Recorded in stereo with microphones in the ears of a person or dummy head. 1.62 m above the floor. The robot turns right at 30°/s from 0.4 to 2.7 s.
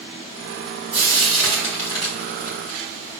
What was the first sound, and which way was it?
Frying, 5° right (ahead or behind).